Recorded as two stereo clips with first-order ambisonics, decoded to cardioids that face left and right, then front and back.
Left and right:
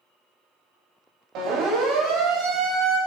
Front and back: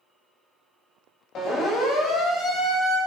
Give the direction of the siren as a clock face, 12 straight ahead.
2 o'clock.